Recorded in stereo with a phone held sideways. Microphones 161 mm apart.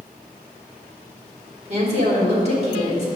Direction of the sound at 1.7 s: 45° right (ahead or behind).